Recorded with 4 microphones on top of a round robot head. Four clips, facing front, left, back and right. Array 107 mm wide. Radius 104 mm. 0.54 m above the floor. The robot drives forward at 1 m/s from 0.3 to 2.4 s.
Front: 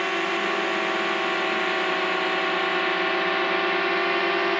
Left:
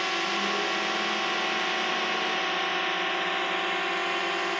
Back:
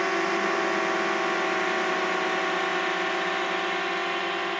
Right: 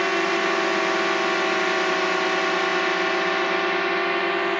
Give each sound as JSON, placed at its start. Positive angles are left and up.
{"t": 0.0, "sound": "a drone", "azimuth_deg": -100}